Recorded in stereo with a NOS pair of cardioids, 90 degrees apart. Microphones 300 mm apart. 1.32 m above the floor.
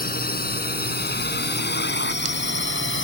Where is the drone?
30° left; by 3.0 s 40° left.